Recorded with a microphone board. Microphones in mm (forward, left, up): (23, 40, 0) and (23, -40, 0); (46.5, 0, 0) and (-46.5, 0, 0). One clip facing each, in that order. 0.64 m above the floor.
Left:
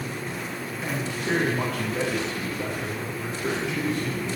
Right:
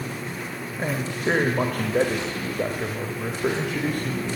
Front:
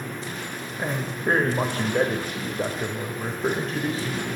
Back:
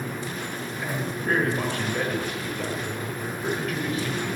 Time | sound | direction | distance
0.8 | a man speaking | 55° right | 3.5 m